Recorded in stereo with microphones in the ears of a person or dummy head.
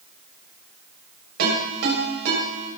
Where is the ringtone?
60° right (ahead or behind), 7.5 m.